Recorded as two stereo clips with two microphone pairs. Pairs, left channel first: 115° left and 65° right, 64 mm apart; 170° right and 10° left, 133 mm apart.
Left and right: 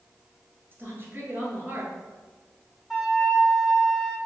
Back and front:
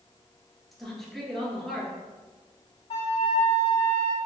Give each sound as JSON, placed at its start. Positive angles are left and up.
{"t": 0.7, "sound": "a woman speaking", "azimuth_deg": -85, "distance_m": 1.5}
{"t": 2.9, "sound": "a flute", "azimuth_deg": -150, "distance_m": 1.1}